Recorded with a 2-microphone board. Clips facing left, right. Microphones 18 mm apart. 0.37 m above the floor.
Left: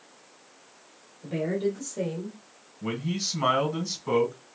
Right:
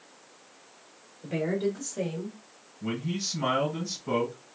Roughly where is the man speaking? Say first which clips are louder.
Left 2 dB; left.